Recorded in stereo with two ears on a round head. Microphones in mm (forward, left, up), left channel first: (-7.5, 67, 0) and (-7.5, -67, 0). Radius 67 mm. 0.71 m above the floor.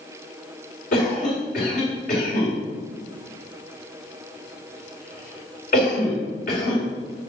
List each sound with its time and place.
0.9 s a cough: 60° left (ahead or behind), 2.5 m